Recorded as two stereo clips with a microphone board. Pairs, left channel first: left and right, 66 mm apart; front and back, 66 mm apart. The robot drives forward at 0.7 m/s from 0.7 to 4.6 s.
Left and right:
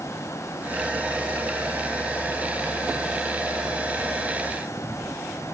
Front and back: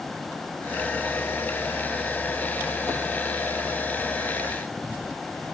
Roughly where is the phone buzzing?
No phone buzzing in this recording.